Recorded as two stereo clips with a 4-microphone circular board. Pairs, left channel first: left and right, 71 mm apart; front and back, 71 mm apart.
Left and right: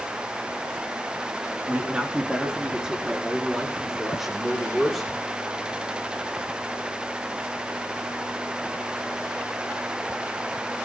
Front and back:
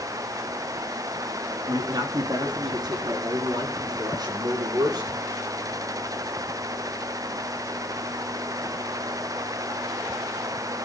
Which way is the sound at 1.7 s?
160° right.